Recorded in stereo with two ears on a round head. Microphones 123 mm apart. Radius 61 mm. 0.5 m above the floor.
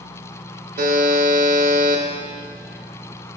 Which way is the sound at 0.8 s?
65° right (ahead or behind).